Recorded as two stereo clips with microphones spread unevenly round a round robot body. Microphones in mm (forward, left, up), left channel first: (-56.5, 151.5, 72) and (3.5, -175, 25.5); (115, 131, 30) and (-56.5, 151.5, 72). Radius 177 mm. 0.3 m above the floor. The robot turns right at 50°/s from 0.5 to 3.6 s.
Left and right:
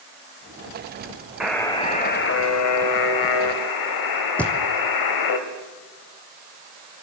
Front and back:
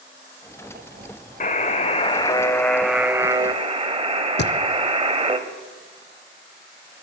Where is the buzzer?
Straight ahead, 2.5 m; by 5.4 s 110° left, 2.5 m.